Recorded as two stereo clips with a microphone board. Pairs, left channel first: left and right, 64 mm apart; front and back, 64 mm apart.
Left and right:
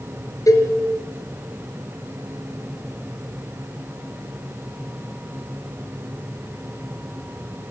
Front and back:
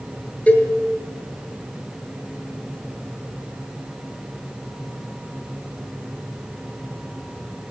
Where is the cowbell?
65° left, 4.5 m.